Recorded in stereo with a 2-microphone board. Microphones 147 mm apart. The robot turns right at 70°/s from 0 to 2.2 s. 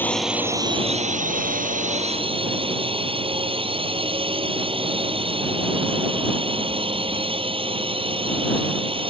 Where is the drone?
165° left; by 9.1 s 40° right.